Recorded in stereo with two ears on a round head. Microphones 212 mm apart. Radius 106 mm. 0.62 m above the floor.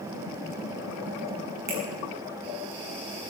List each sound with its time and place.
1.7 s a finger snap: 45° right (ahead or behind), 6.5 m